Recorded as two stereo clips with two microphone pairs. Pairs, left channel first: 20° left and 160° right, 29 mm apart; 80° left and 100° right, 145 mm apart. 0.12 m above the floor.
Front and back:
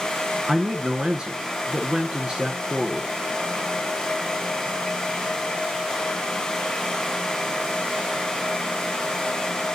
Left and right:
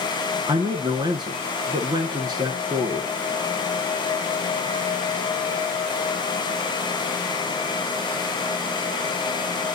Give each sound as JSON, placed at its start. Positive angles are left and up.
{"t": 0.5, "sound": "a man speaking", "azimuth_deg": -130, "distance_m": 1.4}